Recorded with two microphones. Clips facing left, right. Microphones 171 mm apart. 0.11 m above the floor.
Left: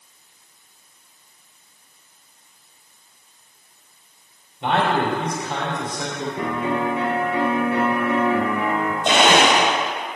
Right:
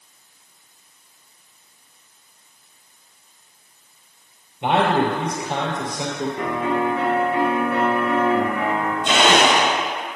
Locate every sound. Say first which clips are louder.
4.6 s a man speaking: right 2 dB; 15° right (ahead or behind), 3 m
6.4 s a piano: even; 30° left (ahead or behind), 2 m
9.1 s a blender: left 1 dB; 60° left (ahead or behind), 3.5 m